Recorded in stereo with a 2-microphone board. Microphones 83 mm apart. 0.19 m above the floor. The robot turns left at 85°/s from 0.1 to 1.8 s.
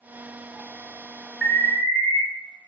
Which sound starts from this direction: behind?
An alarm, at 1.4 s.